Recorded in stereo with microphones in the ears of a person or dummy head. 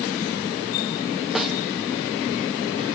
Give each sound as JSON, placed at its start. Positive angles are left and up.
{"t": 1.4, "sound": "a snare drum", "side_deg": -5, "distance_m": 1.4}